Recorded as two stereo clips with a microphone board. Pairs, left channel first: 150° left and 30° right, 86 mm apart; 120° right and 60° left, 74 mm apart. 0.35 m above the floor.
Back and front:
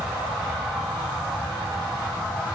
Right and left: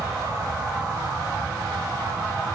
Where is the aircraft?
50° left; by 2.5 s 65° left.